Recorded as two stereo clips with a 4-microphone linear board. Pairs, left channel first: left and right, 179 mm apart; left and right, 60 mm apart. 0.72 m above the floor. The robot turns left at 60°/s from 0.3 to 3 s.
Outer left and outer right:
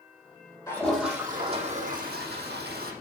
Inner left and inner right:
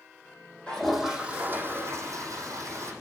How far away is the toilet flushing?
About 6 m.